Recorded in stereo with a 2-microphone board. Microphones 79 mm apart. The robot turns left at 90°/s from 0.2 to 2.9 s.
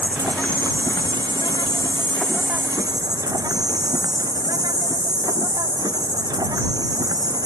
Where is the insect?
165° right; by 7.5 s 50° right.